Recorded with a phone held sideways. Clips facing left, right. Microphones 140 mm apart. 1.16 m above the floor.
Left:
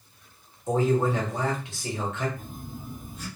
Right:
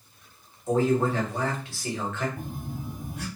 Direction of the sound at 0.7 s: 20° left (ahead or behind).